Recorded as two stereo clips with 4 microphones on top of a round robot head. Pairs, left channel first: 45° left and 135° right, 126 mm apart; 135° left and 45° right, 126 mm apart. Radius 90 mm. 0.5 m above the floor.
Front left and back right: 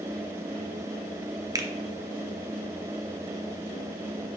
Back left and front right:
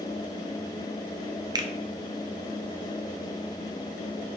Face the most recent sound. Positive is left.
turn(degrees=-85)